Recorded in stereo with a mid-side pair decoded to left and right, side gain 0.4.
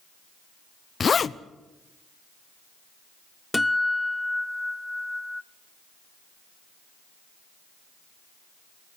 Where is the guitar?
10° left, 0.9 m.